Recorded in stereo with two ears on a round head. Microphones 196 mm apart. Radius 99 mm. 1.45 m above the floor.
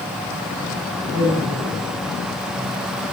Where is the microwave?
No microwave in this recording.